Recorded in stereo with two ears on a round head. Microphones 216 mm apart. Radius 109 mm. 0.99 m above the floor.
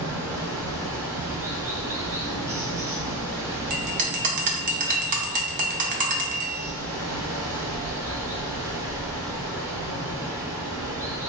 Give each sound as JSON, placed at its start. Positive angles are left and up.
{"t": 0.0, "sound": "running water", "side_deg": -10, "distance_m": 0.8}
{"t": 3.7, "sound": "a bell", "side_deg": -35, "distance_m": 0.6}